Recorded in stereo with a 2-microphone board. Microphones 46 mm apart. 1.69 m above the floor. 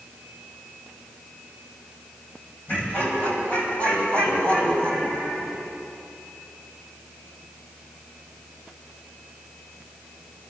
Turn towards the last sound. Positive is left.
turn(degrees=30)  # may be behind; listen again after turning